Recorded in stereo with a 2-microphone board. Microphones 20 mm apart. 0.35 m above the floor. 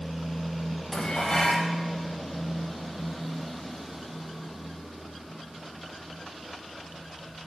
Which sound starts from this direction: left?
Dishes clattering, at 0.9 s.